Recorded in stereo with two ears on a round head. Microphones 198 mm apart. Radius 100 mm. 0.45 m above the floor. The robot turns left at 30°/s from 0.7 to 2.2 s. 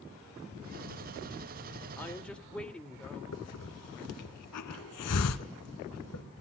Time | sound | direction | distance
2.0 | a woman speaking | 10° left (ahead or behind) | 1.6 m
3.3 | a hiss | 80° left | 1.3 m